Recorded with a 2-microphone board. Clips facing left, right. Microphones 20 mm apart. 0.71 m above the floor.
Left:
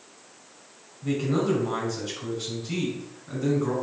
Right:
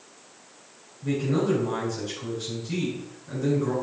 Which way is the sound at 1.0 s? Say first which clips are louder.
Even; 20° left (ahead or behind).